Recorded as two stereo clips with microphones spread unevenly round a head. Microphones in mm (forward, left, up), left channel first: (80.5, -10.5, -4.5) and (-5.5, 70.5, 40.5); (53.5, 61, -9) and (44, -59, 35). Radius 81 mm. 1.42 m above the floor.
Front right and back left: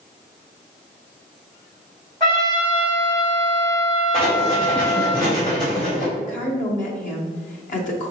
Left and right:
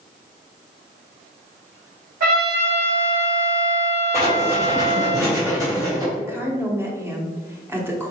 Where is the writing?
70° right, 1.4 m.